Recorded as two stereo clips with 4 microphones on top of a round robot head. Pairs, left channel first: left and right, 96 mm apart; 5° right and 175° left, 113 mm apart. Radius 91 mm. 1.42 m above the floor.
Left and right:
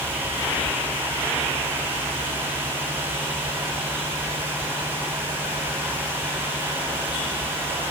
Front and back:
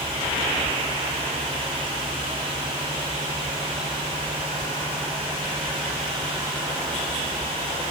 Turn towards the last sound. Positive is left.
No sound to turn to.